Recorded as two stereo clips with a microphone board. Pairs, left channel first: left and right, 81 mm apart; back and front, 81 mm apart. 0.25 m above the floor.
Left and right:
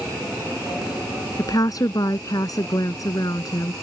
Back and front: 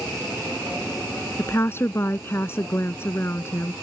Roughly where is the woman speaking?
Behind left.